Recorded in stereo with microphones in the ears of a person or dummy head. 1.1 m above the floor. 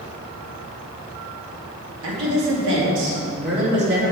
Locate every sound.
2.0 s a woman speaking: 70° right (ahead or behind), 2.5 m; by 4.1 s 55° right (ahead or behind), 2.5 m